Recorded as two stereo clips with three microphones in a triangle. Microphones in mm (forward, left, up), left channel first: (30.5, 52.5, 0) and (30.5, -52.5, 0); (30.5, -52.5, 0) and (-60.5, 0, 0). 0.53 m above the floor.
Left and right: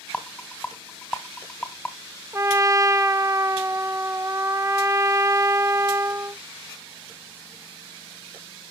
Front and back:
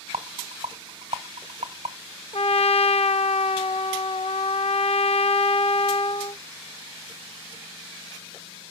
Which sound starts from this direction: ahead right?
A trumpet, at 2.3 s.